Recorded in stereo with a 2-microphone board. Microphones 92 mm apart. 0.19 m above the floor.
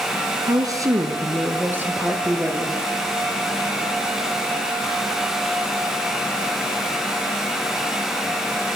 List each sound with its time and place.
0.5 s a woman speaking: 45° right (ahead or behind), 2.5 m; by 2.8 s 15° right (ahead or behind), 5 m